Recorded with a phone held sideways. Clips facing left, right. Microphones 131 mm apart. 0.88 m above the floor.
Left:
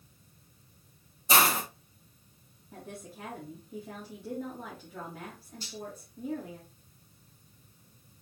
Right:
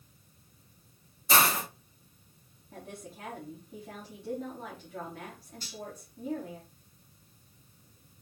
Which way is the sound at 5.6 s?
25° left (ahead or behind).